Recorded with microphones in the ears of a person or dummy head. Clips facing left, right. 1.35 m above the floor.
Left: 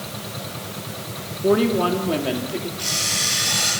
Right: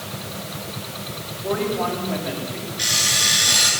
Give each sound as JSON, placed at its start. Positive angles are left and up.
{"t": 1.4, "sound": "a woman speaking", "side_deg": 50, "distance_m": 3.0}
{"t": 2.8, "sound": "an alarm clock", "side_deg": -25, "distance_m": 8.5}